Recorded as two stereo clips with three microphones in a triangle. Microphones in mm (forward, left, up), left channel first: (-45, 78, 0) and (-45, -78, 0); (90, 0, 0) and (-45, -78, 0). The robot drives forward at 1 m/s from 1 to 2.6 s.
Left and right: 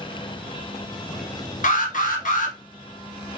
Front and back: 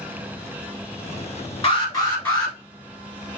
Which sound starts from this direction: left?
An alarm, at 1.6 s.